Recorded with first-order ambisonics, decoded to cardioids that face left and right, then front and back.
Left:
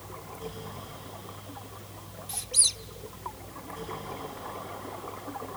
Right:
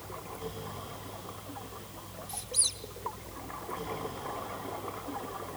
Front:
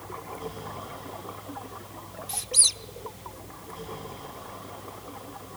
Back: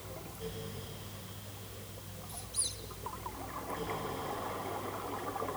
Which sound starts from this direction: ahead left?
A squeak, at 2.3 s.